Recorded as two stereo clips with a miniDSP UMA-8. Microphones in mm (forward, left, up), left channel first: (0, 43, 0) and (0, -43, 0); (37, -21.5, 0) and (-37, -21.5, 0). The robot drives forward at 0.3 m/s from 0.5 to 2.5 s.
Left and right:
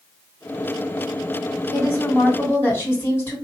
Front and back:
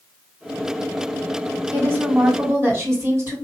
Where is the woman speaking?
135° left, 1.9 m; by 3.4 s 140° left, 2 m.